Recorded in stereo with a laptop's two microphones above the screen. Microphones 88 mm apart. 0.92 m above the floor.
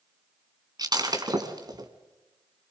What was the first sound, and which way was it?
Breaking glass, 50° right (ahead or behind).